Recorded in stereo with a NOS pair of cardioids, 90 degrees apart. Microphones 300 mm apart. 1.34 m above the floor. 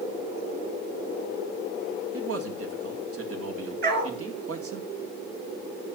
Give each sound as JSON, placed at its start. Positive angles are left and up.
{"t": 2.1, "sound": "a man speaking", "azimuth_deg": -50, "distance_m": 2.5}
{"t": 3.8, "sound": "a dog barking", "azimuth_deg": -35, "distance_m": 5.0}